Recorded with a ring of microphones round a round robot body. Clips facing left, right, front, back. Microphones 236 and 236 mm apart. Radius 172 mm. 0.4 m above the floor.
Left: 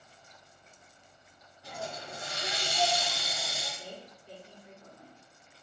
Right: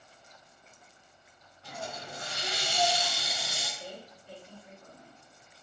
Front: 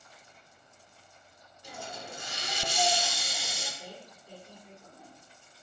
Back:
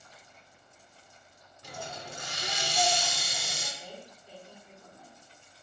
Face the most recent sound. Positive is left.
turn(degrees=55)